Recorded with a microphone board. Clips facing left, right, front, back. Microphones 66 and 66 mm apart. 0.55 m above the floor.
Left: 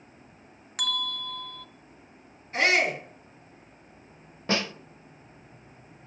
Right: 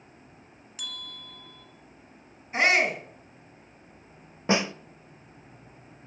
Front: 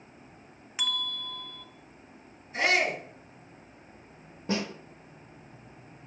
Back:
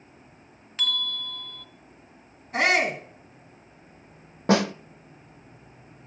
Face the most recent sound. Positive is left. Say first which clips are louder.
# right 3 dB, back 10 dB
turn(degrees=-160)